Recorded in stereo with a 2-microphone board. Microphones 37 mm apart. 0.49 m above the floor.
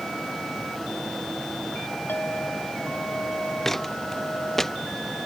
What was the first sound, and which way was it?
A clink, 60° left (ahead or behind).